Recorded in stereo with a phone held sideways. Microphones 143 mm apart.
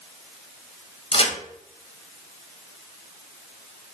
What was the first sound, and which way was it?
A crack, 40° left (ahead or behind).